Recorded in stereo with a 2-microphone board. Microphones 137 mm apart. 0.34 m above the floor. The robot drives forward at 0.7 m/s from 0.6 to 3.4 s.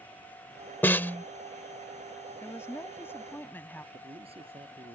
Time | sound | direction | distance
0.8 | a snare drum | 15° left (ahead or behind) | ?
2.4 | a woman speaking | 20° left (ahead or behind) | ?
3.9 | a man speaking | 45° right (ahead or behind) | ?